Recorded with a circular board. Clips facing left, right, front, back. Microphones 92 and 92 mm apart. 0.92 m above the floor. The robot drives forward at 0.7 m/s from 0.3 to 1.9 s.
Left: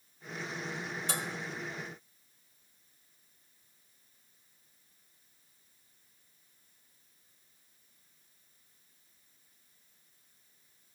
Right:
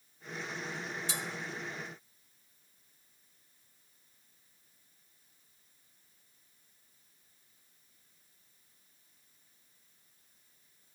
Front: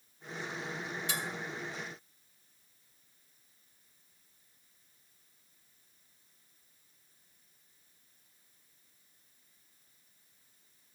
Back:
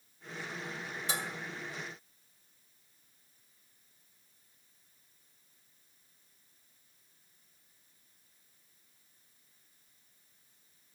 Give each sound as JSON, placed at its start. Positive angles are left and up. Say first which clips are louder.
{"t": 1.1, "sound": "dishes clattering", "louder": "left 5 dB, back 2 dB", "azimuth_deg": 125, "distance_m": 1.6}